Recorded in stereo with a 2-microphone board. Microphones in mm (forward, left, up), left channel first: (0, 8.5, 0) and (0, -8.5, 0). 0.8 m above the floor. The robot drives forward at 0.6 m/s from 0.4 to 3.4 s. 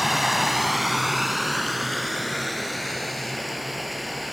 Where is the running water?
5° right (ahead or behind), 0.8 m; by 4.3 s centre (ahead or behind), 2.5 m.